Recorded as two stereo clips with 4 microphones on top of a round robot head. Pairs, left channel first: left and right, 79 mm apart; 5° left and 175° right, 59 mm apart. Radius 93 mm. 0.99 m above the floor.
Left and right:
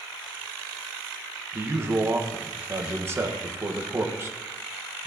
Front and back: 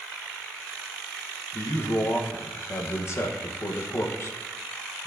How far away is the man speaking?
About 1.0 m.